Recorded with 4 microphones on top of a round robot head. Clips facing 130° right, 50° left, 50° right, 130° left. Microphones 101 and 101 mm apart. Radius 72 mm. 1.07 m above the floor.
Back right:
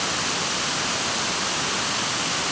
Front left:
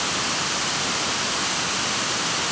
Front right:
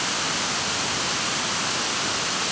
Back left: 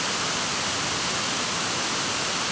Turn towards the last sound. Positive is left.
No sound to turn to.